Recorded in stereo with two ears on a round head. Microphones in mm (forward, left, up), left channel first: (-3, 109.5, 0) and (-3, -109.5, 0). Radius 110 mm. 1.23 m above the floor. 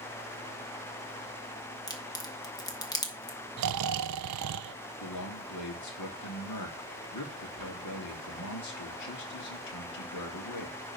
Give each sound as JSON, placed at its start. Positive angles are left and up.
{"t": 1.9, "sound": "a crack", "side_deg": 15, "distance_m": 1.6}
{"t": 3.6, "sound": "snoring", "side_deg": -80, "distance_m": 0.6}
{"t": 5.0, "sound": "a man speaking", "side_deg": 80, "distance_m": 3.0}